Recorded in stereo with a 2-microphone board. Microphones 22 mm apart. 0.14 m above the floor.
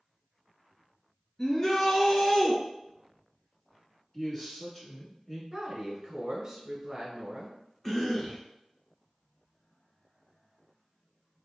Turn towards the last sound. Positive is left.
turn(degrees=15)  # may be behind; listen again after turning